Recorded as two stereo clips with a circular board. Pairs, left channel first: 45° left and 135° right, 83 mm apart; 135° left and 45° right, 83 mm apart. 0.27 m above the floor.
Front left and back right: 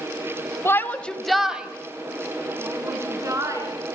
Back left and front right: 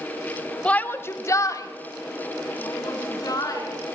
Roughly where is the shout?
Left.